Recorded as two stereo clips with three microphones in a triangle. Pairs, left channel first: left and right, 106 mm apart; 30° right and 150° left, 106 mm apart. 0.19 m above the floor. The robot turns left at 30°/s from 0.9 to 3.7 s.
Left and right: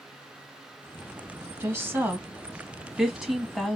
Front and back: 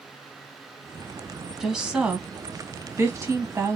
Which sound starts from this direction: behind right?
A woman speaking, at 1.6 s.